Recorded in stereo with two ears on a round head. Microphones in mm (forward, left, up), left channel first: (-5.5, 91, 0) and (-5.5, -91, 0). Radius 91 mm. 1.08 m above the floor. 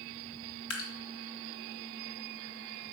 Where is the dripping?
70° left (ahead or behind), 2.5 m.